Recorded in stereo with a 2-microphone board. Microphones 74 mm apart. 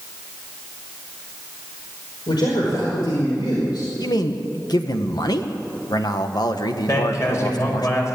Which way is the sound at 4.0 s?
65° left (ahead or behind).